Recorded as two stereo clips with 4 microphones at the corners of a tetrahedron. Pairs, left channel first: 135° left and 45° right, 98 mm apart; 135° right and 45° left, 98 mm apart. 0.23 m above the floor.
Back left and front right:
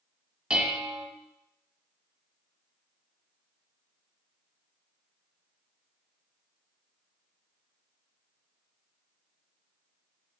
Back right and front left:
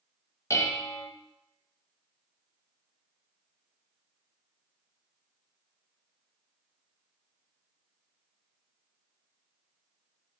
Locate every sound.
0.5 s dishes clattering: 115° right, 0.8 m